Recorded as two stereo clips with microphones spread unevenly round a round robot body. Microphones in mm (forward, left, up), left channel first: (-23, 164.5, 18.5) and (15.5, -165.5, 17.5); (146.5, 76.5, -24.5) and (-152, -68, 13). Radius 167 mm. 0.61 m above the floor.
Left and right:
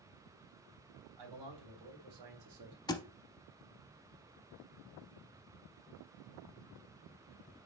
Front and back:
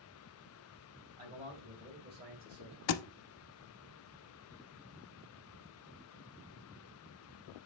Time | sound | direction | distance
1.2 | a man speaking | 80° right | 3 m
2.9 | a thud | 25° left | 0.5 m